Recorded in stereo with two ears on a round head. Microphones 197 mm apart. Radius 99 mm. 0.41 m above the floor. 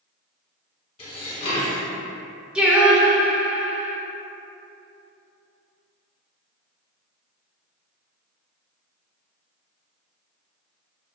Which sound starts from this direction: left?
Dishes clattering, at 1.0 s.